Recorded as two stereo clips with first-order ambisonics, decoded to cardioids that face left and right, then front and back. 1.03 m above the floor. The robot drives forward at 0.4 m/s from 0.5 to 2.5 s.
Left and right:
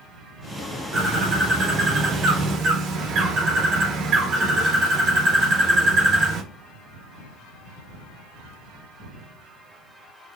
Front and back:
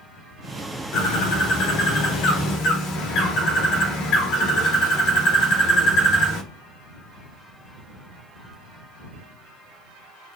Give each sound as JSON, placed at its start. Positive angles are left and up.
{"t": 0.9, "sound": "a bird", "azimuth_deg": -25, "distance_m": 1.7}